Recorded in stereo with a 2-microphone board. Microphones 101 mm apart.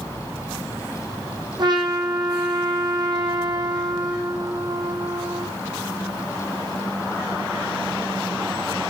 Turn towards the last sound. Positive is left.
turn(degrees=-45)  # may be behind; listen again after turning